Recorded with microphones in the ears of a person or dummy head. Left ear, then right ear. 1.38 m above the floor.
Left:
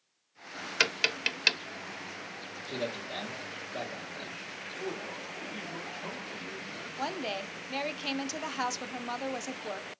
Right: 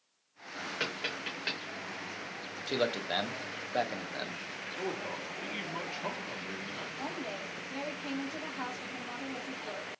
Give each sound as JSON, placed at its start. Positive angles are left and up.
{"t": 0.8, "sound": "tapping", "side_deg": 65, "distance_m": 0.7}
{"t": 2.7, "sound": "a man speaking", "side_deg": -65, "distance_m": 0.8}
{"t": 4.7, "sound": "a man speaking", "side_deg": -40, "distance_m": 1.0}
{"t": 7.0, "sound": "a woman speaking", "side_deg": 75, "distance_m": 0.6}